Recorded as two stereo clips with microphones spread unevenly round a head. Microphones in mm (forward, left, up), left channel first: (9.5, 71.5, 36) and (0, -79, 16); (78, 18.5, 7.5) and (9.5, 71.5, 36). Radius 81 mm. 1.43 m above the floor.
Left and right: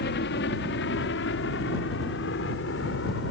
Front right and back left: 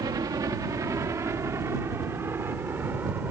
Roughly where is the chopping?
I don't hear chopping.